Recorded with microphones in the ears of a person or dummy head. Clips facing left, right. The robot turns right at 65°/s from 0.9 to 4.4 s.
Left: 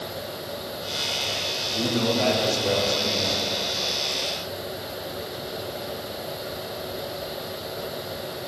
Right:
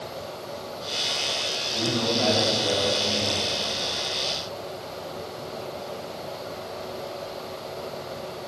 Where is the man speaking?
20° left, 1.6 m; by 3.4 s 130° left, 1.6 m.